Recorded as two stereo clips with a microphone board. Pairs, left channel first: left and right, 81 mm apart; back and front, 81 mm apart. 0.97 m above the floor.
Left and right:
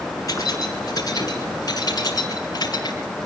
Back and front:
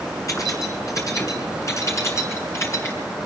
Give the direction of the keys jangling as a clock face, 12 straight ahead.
8 o'clock.